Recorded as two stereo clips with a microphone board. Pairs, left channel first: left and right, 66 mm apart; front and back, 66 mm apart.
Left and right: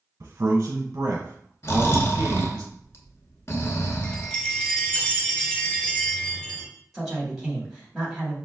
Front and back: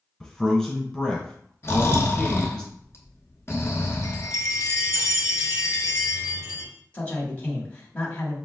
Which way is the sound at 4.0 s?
20° left.